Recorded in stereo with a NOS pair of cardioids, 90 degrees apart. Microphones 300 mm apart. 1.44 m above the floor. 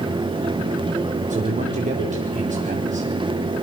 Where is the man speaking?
25° right, 5 m.